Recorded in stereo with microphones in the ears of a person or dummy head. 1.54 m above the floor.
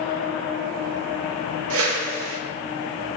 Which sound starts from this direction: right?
A whoosh, at 1.7 s.